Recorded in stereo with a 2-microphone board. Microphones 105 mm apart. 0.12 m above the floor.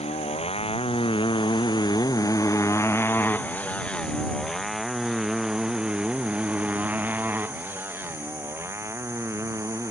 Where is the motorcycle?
70° left (ahead or behind); by 9.9 s 25° right (ahead or behind).